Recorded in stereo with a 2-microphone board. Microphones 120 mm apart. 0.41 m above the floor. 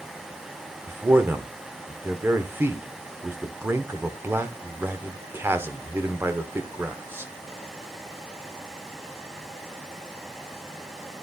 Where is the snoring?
No snoring in this recording.